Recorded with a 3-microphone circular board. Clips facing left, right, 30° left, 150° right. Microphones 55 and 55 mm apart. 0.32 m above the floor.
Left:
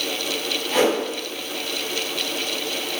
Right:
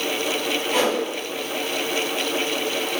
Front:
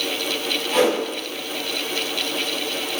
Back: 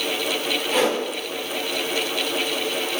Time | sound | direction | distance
0.7 | a whoosh | 125° left | 1.7 m